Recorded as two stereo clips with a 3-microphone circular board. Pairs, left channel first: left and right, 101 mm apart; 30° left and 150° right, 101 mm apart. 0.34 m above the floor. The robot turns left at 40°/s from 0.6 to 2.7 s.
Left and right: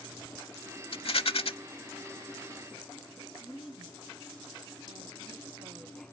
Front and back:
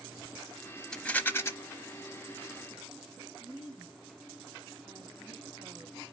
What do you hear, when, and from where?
0.9 s a rattle: 110° left, 0.7 m; by 1.5 s 90° left, 0.7 m
3.4 s a woman speaking: 100° right, 2 m